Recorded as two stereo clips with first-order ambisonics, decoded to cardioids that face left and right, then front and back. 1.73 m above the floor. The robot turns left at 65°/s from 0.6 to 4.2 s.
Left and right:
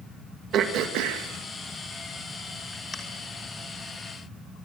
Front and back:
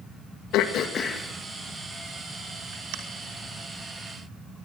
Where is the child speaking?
No child speaking in this recording.